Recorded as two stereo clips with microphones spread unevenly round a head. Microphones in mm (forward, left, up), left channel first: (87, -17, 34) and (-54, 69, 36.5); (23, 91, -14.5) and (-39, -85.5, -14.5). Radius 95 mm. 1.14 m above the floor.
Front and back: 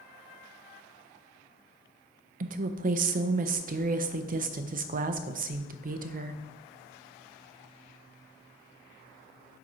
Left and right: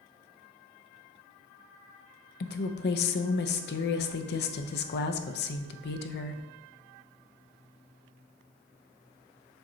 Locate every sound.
2.4 s a woman speaking: 110° left, 0.6 m